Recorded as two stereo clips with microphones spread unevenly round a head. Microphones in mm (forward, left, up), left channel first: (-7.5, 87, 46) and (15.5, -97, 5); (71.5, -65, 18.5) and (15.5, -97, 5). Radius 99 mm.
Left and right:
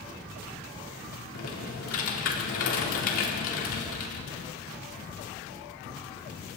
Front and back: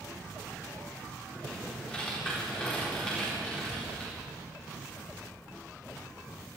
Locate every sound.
1.3 s typing on a keyboard: 115° left, 4 m